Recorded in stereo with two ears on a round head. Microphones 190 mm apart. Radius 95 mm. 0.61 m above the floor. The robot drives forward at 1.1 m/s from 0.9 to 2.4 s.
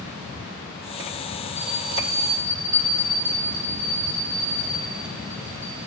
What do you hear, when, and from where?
1.6 s a bell: 15° right (ahead or behind), 3.5 m; by 5.8 s 10° right (ahead or behind), 4.5 m